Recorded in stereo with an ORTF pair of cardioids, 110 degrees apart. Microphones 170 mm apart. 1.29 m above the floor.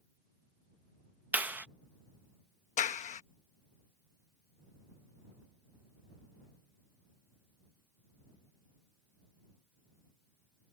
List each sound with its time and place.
1.3 s a clap: 10° right
2.8 s a clap: 45° left